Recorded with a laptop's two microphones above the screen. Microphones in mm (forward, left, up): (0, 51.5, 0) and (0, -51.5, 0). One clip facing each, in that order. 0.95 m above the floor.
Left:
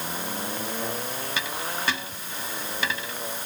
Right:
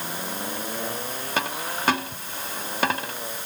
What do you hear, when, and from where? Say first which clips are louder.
1.4 s a dropped coin: right 6 dB; 55° right (ahead or behind)